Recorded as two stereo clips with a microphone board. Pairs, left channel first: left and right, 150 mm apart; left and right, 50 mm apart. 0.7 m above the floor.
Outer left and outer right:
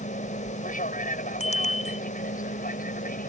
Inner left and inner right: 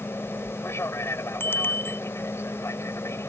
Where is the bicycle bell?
50° left (ahead or behind).